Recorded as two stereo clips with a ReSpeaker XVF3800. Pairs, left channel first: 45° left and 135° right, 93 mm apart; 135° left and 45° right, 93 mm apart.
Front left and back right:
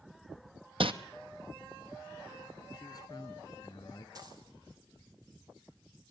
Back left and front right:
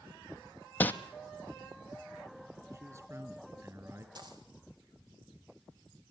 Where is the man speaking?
5° left, 3 m.